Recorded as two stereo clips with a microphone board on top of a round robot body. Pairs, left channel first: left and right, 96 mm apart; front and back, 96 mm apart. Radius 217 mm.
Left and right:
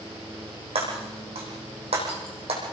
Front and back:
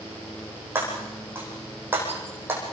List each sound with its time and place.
0.8 s breaking glass: 110° right, 7 m